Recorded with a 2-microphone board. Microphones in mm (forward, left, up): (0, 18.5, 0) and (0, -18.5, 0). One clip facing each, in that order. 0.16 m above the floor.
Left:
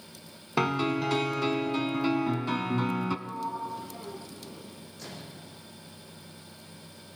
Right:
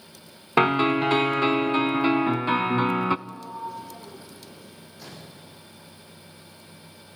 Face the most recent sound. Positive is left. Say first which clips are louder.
# even
turn(degrees=-5)  # may be behind; listen again after turning